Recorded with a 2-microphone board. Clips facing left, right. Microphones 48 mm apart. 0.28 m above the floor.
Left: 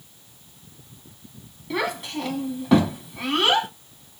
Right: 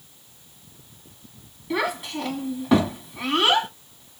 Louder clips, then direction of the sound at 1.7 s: Right 1 dB; 5° right (ahead or behind).